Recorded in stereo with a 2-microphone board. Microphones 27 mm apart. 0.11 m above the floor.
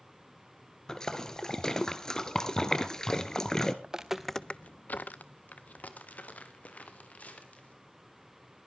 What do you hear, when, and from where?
0.9 s a splash: 25° left (ahead or behind), 1.1 m
3.8 s footsteps: 25° right (ahead or behind), 0.9 m; by 7.8 s 60° left (ahead or behind), 4 m